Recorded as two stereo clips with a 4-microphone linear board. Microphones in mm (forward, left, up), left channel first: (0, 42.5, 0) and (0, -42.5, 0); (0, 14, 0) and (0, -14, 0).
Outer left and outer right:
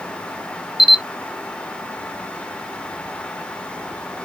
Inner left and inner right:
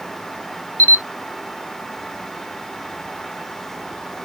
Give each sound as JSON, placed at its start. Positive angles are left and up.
{"t": 0.8, "sound": "a camera shutter", "side_deg": 80, "distance_m": 0.8}